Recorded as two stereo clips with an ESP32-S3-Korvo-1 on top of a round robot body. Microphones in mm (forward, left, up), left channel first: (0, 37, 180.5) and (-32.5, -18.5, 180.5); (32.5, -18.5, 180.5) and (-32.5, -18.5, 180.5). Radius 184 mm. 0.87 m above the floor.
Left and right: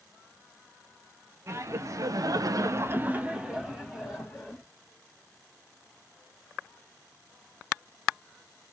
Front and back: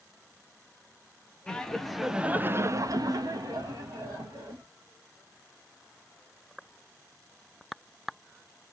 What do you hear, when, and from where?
1.5 s laughter: 75° right, 0.8 m; by 4.6 s 145° left, 1.2 m